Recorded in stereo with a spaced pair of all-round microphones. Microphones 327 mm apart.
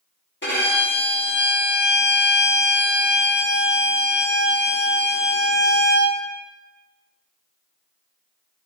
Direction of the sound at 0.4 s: 35° left (ahead or behind).